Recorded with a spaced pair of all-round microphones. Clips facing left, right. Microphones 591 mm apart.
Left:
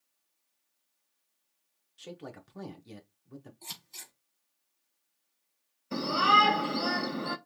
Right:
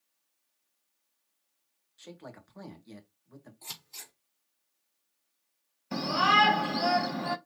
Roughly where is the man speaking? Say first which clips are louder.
Left 3 dB; left.